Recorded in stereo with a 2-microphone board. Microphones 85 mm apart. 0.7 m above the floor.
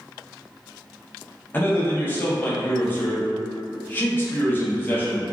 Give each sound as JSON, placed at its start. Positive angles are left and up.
{"t": 1.5, "sound": "a man speaking", "side_deg": 25, "distance_m": 0.7}